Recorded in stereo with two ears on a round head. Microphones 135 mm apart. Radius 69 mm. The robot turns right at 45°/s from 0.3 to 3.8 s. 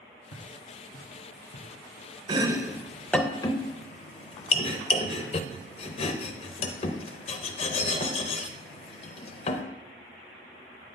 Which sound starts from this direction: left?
Footsteps, at 0.3 s.